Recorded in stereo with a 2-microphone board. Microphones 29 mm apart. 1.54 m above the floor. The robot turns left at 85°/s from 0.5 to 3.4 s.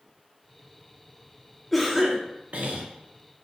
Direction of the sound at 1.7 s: 10° left.